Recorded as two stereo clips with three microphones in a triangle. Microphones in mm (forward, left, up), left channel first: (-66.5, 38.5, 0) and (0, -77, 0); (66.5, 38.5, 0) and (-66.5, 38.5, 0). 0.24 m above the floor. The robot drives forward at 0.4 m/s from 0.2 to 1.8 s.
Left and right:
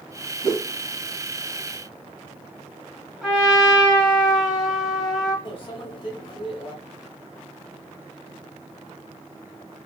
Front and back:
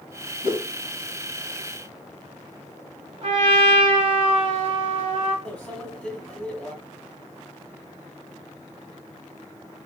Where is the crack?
No crack in this recording.